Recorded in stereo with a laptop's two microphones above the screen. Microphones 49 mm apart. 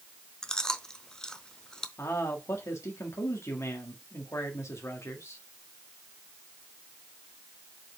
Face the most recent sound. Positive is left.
turn(degrees=80)